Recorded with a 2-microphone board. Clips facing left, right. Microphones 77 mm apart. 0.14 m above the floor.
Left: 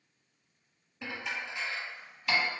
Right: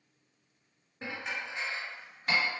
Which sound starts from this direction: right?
Dishes clattering, at 1.0 s.